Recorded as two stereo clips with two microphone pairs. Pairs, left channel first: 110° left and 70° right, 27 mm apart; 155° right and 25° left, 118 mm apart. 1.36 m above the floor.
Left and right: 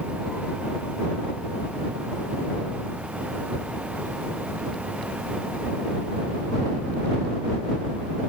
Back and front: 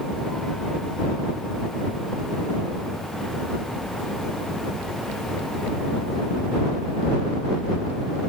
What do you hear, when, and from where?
Only background noise.